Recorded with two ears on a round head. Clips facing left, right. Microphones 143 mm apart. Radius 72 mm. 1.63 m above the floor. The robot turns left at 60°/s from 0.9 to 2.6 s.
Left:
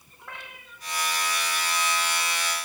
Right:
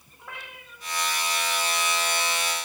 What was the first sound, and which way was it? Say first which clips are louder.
A cat meowing: right 1 dB; 5° right (ahead or behind).